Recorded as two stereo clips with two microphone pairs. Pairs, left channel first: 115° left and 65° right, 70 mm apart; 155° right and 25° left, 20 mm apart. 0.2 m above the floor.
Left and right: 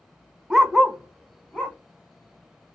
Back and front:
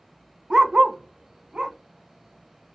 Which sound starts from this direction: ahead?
A dog barking, at 0.5 s.